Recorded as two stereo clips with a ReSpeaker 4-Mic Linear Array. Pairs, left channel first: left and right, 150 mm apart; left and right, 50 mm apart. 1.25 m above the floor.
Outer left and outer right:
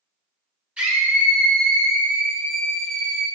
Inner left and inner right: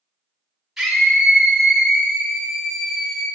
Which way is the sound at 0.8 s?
10° right (ahead or behind).